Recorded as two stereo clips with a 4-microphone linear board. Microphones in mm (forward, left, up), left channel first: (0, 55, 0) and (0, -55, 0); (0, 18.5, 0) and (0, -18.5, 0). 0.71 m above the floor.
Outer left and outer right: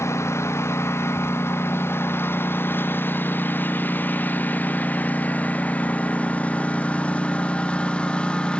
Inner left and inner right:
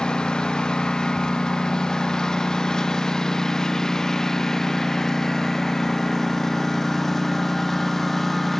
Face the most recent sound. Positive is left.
turn(degrees=10)  # may be behind; listen again after turning